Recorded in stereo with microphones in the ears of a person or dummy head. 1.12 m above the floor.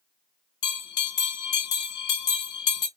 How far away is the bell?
About 1.1 m.